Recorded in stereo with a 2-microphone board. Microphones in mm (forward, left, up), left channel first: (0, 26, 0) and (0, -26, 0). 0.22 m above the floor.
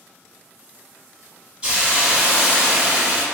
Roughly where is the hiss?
Centre.